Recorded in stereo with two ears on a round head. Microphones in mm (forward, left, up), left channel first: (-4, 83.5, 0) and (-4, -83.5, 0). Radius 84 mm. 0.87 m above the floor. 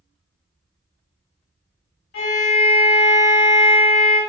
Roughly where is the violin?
Left.